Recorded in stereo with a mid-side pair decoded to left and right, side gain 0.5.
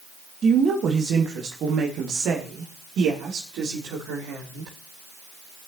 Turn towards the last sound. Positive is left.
turn(degrees=-75)